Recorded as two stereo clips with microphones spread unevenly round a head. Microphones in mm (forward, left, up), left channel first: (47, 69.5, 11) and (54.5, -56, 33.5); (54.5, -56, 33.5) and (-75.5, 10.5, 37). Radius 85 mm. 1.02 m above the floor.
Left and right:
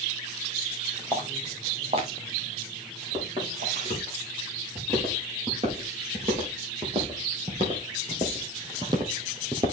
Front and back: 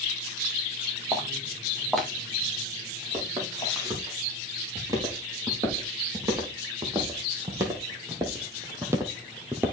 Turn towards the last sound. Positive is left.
turn(degrees=-135)